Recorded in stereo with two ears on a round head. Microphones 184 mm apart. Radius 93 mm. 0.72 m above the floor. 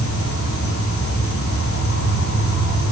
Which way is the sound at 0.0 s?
80° left.